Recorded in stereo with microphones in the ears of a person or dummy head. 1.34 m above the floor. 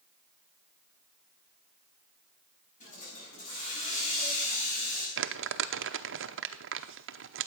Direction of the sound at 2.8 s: 45° left (ahead or behind).